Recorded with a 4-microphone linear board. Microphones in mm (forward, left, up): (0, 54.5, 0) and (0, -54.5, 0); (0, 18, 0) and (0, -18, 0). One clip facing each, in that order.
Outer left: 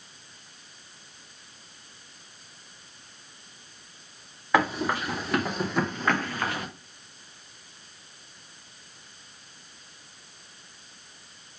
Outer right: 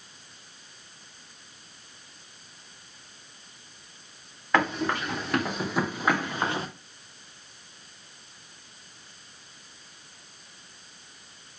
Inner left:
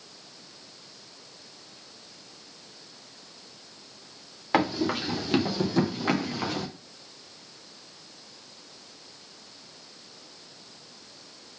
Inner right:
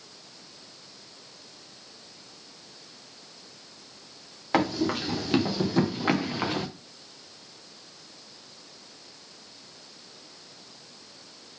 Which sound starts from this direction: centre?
Running footsteps, at 4.5 s.